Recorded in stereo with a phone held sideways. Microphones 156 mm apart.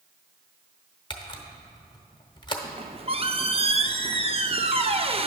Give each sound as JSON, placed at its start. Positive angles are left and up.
{"t": 1.1, "sound": "a camera shutter", "side_deg": 30, "distance_m": 0.9}
{"t": 2.6, "sound": "a squeak", "side_deg": -40, "distance_m": 0.5}